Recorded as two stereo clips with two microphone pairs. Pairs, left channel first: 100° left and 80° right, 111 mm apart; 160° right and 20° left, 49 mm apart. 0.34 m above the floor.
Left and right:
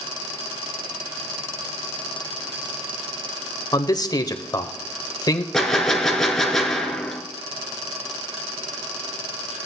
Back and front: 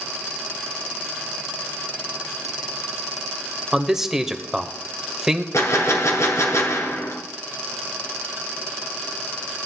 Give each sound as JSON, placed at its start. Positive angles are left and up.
{"t": 3.7, "sound": "a man speaking", "azimuth_deg": 90, "distance_m": 1.0}
{"t": 5.5, "sound": "a gunshot", "azimuth_deg": -170, "distance_m": 1.7}